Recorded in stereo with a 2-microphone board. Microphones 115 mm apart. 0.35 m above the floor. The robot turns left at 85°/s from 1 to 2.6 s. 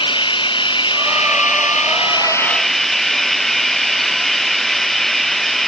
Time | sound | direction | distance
0.0 | running water | 135° left | ?